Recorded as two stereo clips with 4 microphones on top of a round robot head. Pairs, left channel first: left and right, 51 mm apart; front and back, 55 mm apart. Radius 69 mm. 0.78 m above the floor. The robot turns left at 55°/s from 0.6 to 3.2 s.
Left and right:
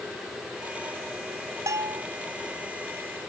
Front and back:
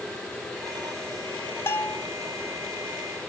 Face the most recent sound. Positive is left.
turn(degrees=-140)